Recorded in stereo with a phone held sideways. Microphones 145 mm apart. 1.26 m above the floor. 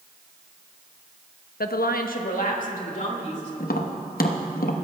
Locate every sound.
1.6 s a woman speaking: 80° left, 0.7 m; by 3.5 s 55° left (ahead or behind), 3 m
3.6 s tapping: 75° left (ahead or behind), 1.0 m